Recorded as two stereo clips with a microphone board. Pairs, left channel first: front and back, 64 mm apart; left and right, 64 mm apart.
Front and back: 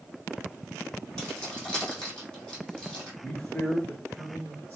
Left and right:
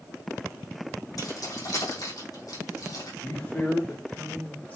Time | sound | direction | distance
1.2 | keys jangling | 75° left | 3 m
3.2 | a man speaking | 45° left | 1.8 m